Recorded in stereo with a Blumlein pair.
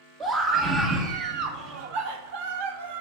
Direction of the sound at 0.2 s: 20° right.